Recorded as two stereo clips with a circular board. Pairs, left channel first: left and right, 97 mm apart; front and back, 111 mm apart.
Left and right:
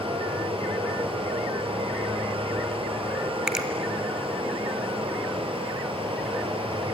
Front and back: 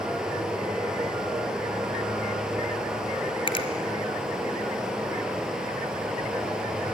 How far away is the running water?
About 3.5 m.